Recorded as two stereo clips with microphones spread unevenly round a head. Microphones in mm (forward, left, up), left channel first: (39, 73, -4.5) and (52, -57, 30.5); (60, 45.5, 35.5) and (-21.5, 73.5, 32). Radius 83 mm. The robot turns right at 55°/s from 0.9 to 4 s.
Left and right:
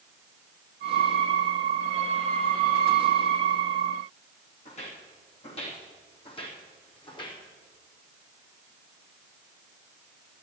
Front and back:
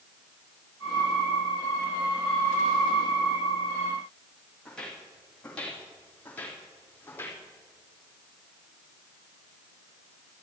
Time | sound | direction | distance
4.7 | footsteps | 60° left | 4 m